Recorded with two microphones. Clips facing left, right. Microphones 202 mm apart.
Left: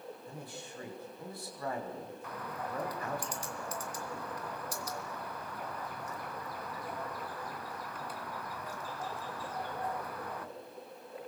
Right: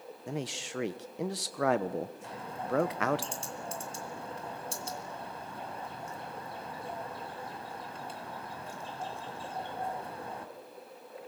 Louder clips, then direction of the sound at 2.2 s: Right 3 dB; 25° right (ahead or behind).